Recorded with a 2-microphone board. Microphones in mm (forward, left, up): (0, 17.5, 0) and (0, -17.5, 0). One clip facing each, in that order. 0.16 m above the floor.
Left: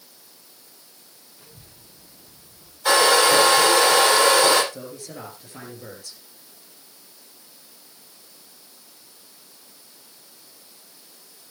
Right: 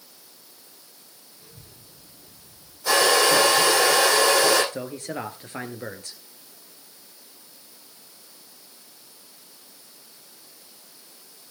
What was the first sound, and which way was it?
A child speaking, 65° left (ahead or behind).